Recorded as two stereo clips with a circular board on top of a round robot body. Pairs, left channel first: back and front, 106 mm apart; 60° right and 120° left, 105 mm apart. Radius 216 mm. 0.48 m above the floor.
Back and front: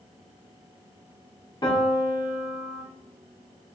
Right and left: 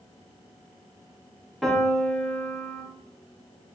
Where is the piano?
150° right, 1.0 m.